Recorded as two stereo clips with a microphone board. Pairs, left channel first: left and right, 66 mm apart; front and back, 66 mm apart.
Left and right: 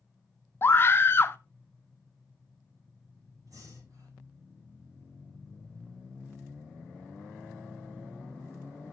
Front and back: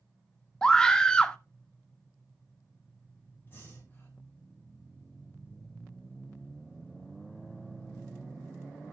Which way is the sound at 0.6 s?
75° left.